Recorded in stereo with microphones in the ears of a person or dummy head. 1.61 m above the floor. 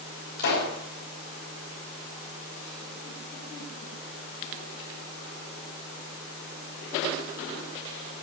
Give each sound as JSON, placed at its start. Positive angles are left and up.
{"t": 0.4, "sound": "a pop", "side_deg": 55, "distance_m": 3.5}